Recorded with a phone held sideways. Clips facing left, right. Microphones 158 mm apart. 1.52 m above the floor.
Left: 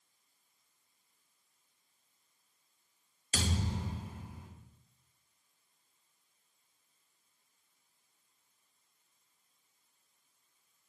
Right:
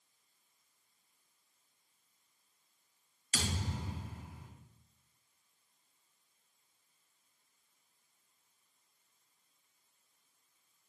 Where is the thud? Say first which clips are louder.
Left 3 dB; 35° left (ahead or behind), 2 m.